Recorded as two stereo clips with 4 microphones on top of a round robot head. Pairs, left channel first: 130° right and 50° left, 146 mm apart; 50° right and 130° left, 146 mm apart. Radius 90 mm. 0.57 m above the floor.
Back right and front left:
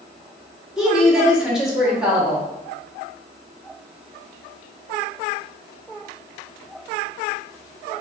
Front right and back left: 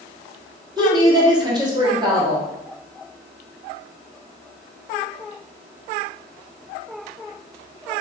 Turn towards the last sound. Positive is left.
turn(degrees=130)